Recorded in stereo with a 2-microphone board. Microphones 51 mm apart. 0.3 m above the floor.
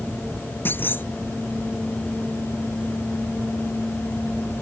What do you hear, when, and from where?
0.7 s a clunk: 45° left (ahead or behind)